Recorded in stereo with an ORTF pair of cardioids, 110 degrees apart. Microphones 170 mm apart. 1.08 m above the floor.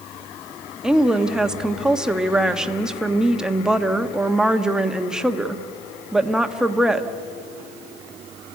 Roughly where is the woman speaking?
Ahead.